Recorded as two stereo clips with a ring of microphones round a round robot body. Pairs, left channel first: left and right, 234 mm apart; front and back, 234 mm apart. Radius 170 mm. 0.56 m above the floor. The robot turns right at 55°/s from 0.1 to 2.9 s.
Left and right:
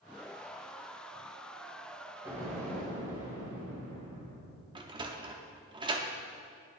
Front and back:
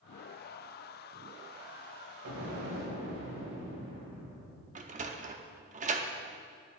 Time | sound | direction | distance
2.2 | an explosion | 170° right | 3 m
4.8 | a sliding door | 145° right | 0.7 m